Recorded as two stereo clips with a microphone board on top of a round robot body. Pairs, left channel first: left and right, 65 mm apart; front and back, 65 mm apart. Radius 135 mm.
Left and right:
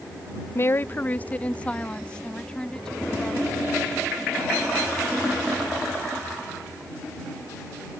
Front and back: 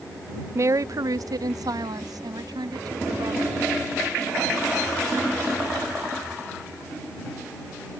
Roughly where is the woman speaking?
Behind left.